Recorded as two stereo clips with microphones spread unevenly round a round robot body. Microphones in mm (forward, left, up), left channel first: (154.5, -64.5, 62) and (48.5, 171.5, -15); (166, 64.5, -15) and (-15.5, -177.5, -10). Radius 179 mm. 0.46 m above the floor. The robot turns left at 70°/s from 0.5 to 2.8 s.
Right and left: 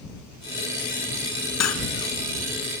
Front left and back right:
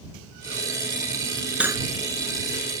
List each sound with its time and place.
1.6 s cutlery clinking: 40° right; by 1.9 s 60° right